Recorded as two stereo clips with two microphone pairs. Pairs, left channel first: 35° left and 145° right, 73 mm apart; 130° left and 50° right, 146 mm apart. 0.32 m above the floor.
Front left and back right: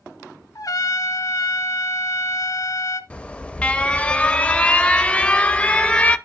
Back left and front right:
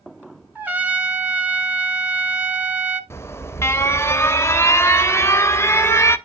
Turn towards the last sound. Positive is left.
turn(degrees=80)